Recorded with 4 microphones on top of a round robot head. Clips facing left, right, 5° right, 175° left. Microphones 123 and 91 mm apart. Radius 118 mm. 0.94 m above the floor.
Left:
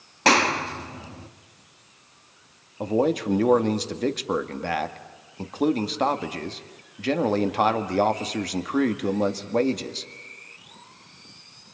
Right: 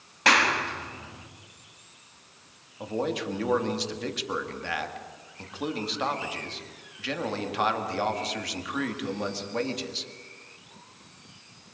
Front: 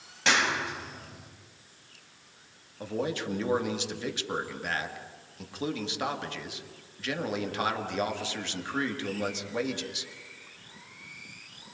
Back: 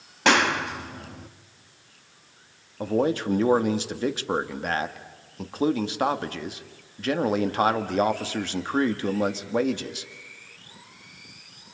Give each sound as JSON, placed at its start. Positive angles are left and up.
{"t": 0.2, "sound": "a clap", "azimuth_deg": 140, "distance_m": 1.9}
{"t": 2.8, "sound": "a man speaking", "azimuth_deg": 130, "distance_m": 1.9}